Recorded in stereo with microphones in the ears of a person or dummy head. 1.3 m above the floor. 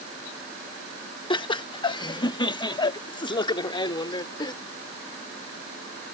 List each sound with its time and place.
1.3 s laughter: 25° left (ahead or behind)